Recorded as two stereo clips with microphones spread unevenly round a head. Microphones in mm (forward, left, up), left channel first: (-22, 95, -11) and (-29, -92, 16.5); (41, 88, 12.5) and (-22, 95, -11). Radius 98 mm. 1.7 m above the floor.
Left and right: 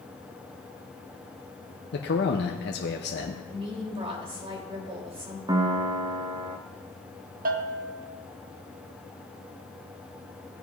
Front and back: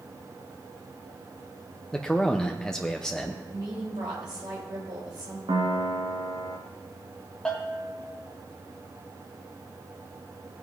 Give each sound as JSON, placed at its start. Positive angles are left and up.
{"t": 1.9, "sound": "a man speaking", "azimuth_deg": 60, "distance_m": 0.8}
{"t": 3.5, "sound": "a woman speaking", "azimuth_deg": -150, "distance_m": 3.5}
{"t": 5.5, "sound": "a piano", "azimuth_deg": -150, "distance_m": 1.2}
{"t": 7.5, "sound": "a bell", "azimuth_deg": -70, "distance_m": 1.0}